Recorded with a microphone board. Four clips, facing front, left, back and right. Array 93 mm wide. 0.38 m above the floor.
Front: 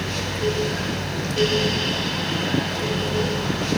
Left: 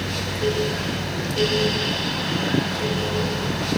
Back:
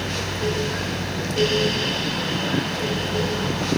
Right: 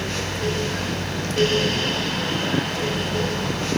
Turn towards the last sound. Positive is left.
No sound to turn to.